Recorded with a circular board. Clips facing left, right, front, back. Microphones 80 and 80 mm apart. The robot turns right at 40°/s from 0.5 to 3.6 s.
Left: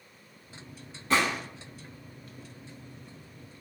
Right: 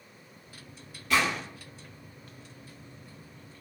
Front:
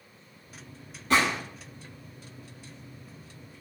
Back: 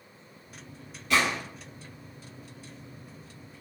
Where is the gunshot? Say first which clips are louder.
Left 1 dB, front 2 dB; 40° left, 0.8 m; by 1.4 s 50° left, 0.8 m.